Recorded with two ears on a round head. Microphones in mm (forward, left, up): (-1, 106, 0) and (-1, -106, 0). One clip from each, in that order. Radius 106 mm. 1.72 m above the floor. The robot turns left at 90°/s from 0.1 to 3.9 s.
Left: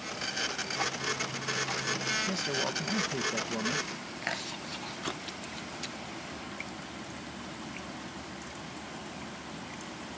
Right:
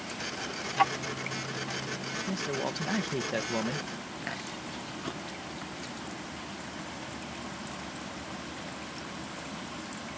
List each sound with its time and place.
0.8 s ticking: 50° right (ahead or behind); by 2.2 s 70° left (ahead or behind)
2.3 s a man speaking: 40° left; by 3.9 s 105° right
4.2 s chewing: 35° left (ahead or behind)